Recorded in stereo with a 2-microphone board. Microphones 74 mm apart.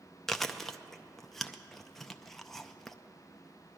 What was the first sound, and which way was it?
Chewing, 5° left (ahead or behind).